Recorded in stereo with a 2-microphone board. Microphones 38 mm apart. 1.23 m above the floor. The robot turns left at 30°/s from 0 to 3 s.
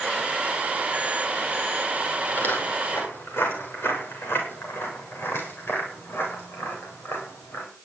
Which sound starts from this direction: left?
Footsteps, at 2.3 s.